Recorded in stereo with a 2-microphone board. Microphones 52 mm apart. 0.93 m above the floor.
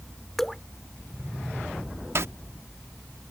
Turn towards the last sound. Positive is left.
turn(degrees=-55)  # may be behind; listen again after turning